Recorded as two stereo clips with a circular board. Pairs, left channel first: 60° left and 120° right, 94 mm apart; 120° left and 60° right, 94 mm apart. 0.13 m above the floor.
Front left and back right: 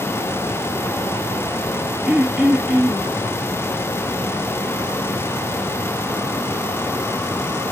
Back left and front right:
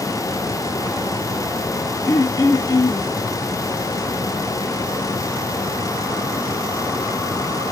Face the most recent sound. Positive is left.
turn(degrees=160)